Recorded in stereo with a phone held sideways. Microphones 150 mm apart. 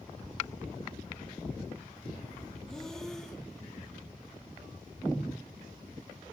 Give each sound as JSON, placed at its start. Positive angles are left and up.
{"t": 2.7, "sound": "breathing", "side_deg": 5, "distance_m": 1.3}